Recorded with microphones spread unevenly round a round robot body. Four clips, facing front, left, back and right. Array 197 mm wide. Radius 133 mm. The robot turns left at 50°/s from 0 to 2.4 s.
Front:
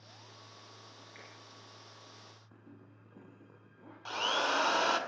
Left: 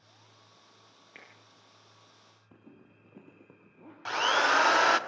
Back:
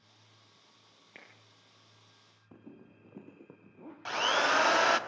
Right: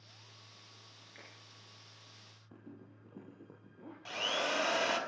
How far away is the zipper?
About 3.5 m.